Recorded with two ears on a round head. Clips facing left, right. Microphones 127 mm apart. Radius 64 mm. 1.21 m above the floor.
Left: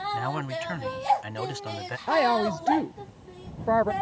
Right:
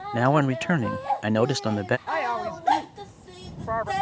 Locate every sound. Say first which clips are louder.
0.1 s a man speaking: right 8 dB; 65° right (ahead or behind)
2.1 s a woman speaking: left 5 dB; 40° left (ahead or behind)